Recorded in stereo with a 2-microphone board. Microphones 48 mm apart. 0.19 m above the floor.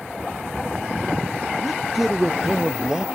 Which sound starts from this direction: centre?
A man speaking, at 1.6 s.